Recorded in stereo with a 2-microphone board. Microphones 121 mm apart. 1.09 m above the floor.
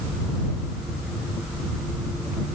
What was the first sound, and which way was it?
Only background noise.